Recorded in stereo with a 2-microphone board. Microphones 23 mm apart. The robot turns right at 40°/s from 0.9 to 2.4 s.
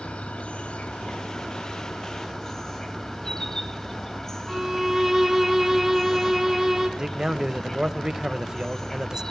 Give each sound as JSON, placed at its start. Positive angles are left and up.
{"t": 0.0, "sound": "an insect", "azimuth_deg": 90, "distance_m": 3.5}
{"t": 4.5, "sound": "a violin", "side_deg": -10, "distance_m": 2.0}
{"t": 7.0, "sound": "a man speaking", "side_deg": -30, "distance_m": 1.1}